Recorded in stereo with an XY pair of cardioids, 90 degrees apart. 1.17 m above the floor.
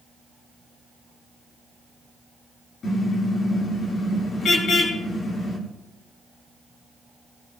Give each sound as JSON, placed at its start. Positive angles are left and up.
{"t": 2.8, "sound": "a car horn", "azimuth_deg": 60, "distance_m": 10.0}